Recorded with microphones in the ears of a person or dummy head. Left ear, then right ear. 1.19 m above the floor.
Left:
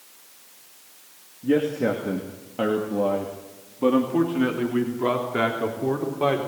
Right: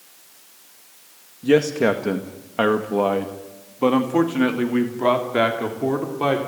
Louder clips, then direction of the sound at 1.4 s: Right 5 dB; 75° right (ahead or behind).